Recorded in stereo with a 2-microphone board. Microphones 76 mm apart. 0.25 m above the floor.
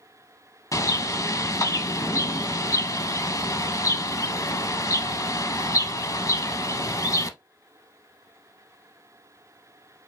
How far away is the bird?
About 0.5 m.